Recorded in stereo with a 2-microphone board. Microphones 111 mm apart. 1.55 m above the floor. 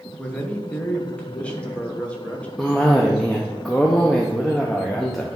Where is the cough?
5° left (ahead or behind), 0.7 m.